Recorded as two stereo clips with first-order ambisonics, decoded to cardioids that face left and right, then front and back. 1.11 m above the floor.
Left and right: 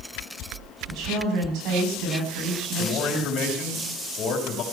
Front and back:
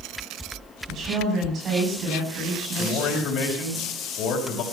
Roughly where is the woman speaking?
Behind right.